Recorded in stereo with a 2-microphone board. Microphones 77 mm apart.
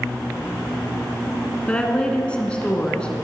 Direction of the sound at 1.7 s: 15° left (ahead or behind).